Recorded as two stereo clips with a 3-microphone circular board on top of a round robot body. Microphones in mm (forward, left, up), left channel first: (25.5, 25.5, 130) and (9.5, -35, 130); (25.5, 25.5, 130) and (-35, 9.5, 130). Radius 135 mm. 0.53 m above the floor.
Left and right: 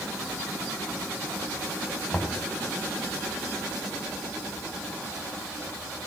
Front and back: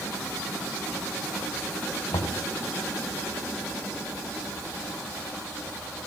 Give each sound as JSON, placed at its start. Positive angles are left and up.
{"t": 2.1, "sound": "knocking", "azimuth_deg": -10, "distance_m": 3.0}